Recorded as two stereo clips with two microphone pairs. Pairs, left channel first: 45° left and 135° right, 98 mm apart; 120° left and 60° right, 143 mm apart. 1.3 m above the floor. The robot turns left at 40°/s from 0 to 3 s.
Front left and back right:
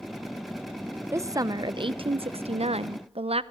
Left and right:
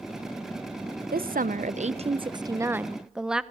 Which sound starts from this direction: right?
A woman speaking, at 1.1 s.